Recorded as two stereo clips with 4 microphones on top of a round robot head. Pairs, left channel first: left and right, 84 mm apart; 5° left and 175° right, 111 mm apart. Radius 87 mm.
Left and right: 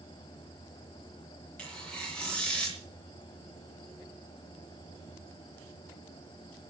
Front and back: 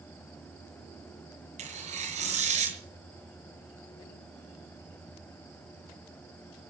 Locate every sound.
1.6 s tearing paper: 170° left, 5 m